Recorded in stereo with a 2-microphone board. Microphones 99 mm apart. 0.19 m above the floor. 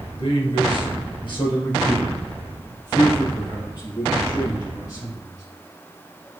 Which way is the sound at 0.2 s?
55° left (ahead or behind).